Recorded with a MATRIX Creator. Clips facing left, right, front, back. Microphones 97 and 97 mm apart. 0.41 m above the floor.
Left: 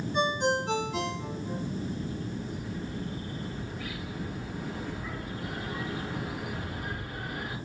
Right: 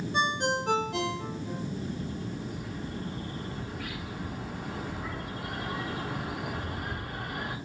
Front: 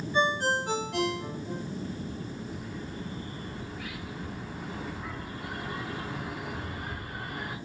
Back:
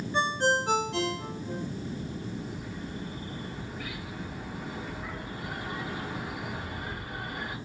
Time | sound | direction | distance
0.1 | a ringtone | 110° right | 2 m
1.8 | a bird | 100° right | 2 m